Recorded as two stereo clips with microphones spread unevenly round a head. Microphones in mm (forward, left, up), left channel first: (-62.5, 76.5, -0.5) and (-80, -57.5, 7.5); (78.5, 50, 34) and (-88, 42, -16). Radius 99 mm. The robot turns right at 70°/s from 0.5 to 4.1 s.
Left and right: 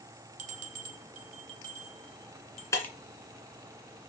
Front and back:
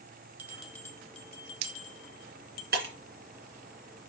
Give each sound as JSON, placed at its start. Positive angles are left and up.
{"t": 0.4, "sound": "a bell", "azimuth_deg": -110, "distance_m": 0.9}
{"t": 2.7, "sound": "breaking glass", "azimuth_deg": 150, "distance_m": 2.5}